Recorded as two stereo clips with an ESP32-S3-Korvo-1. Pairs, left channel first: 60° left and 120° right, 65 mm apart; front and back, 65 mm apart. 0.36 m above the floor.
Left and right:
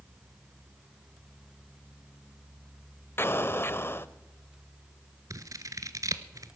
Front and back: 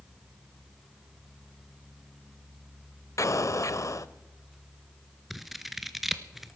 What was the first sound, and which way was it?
An explosion, 15° left.